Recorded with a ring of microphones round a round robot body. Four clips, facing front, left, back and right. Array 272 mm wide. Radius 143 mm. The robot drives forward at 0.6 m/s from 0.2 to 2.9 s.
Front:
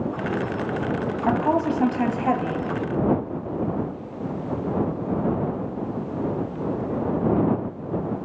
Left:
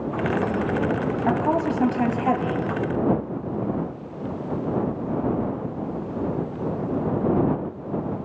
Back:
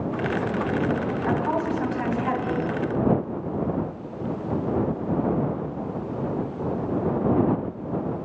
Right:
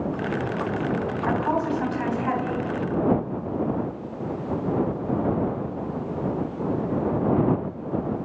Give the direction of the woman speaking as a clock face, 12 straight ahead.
11 o'clock.